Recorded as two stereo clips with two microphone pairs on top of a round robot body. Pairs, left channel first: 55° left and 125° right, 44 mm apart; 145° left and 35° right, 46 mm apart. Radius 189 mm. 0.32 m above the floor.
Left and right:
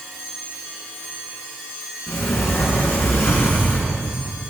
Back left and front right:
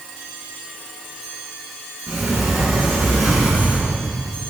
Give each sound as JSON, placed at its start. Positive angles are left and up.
{"t": 2.1, "sound": "a sliding door", "azimuth_deg": 45, "distance_m": 2.5}